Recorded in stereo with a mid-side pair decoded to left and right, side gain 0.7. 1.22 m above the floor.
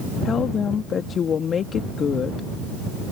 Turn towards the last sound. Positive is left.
turn(degrees=35)